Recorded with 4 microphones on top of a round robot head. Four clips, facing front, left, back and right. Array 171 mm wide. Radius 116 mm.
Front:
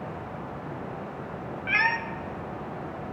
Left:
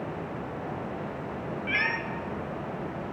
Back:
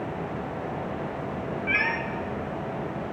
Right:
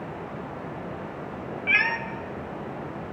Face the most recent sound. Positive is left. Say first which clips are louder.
# right 5 dB, front 3 dB
turn(degrees=-30)